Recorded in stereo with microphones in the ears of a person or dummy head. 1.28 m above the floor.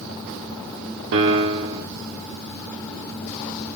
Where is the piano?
60° right (ahead or behind), 0.6 m.